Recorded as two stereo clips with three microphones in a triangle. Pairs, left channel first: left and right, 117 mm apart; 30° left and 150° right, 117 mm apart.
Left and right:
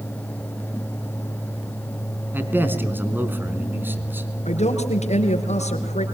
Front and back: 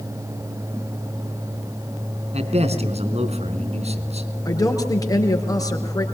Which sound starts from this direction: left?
A woman speaking, at 4.5 s.